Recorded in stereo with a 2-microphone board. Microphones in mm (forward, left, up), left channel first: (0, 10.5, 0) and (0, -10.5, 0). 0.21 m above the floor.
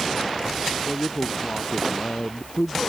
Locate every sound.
0.8 s a man speaking: 75° left (ahead or behind)